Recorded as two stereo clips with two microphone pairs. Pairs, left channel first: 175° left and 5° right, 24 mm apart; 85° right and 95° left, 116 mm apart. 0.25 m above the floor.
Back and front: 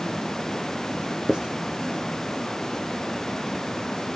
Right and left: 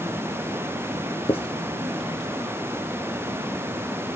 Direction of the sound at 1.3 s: 50° right.